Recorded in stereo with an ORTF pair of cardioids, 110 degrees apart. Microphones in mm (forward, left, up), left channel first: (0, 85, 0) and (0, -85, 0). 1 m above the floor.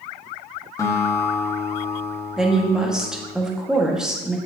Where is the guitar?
20° left, 1.3 m.